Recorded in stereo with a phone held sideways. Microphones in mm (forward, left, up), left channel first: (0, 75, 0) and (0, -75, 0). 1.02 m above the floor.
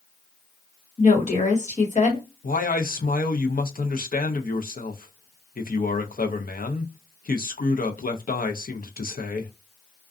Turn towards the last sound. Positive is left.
turn(degrees=70)  # may be behind; listen again after turning